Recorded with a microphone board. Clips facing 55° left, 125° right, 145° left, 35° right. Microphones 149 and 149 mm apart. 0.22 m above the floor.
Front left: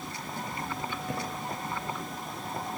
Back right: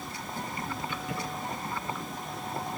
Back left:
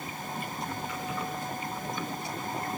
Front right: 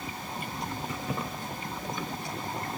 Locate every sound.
0.9 s keys jangling: 10° left, 10 m